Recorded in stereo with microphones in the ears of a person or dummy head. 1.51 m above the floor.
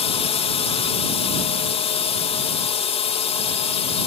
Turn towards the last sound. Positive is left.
turn(degrees=25)  # may be behind; listen again after turning